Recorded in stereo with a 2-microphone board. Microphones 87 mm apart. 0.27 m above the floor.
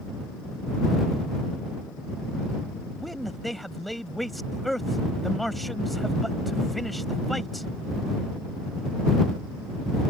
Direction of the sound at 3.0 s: Centre (ahead or behind).